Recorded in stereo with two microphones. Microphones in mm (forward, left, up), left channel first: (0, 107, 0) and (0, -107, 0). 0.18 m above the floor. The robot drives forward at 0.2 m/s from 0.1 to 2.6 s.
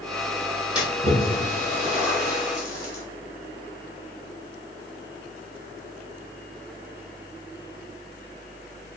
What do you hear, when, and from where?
0.8 s a splash: 5° right (ahead or behind), 1.1 m